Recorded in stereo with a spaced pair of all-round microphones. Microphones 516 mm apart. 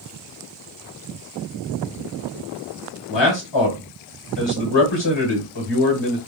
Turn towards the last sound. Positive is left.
turn(degrees=55)  # may be behind; listen again after turning